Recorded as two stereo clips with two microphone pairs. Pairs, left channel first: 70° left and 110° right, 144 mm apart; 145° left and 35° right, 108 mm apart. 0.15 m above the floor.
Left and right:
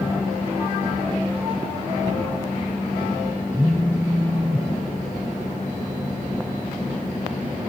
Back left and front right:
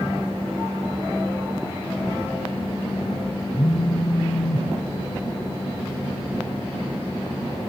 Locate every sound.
3.5 s a phone buzzing: 175° left, 2 m